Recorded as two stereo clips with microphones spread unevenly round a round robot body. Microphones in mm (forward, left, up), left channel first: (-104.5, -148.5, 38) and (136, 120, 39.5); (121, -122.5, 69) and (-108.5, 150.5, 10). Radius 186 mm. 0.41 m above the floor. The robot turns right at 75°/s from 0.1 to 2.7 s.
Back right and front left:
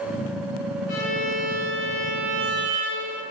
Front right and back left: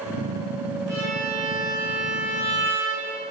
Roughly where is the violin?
Behind right.